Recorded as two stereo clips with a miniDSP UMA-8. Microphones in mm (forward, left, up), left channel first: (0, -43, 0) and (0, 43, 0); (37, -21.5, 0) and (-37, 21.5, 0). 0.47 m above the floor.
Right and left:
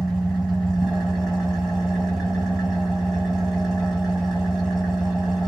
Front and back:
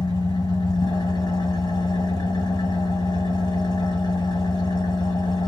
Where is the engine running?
Straight ahead, 1.3 m.